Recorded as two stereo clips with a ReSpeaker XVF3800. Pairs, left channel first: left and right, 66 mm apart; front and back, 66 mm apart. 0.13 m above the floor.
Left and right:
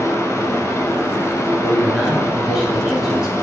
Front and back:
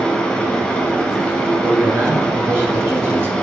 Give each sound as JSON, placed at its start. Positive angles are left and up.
{"t": 0.0, "sound": "running water", "azimuth_deg": 75, "distance_m": 1.0}
{"t": 1.6, "sound": "a man speaking", "azimuth_deg": -165, "distance_m": 1.3}